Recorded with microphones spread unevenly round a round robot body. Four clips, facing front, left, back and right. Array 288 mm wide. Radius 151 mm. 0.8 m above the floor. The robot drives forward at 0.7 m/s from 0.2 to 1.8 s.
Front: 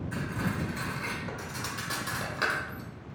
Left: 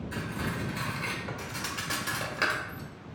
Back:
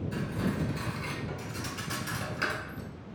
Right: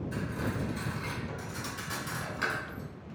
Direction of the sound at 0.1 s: 35° left.